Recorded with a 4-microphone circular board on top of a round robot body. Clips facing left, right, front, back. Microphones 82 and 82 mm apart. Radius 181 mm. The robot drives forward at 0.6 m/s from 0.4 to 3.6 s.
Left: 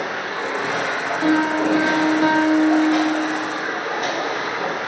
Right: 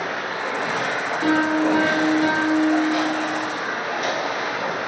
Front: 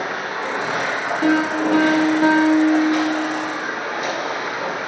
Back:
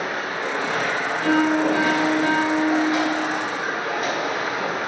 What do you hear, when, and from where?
0.0 s running water: 60° left, 1.4 m; by 4.9 s 135° left, 1.7 m
1.2 s a piano: 20° left, 1.4 m; by 3.4 s 90° left, 0.5 m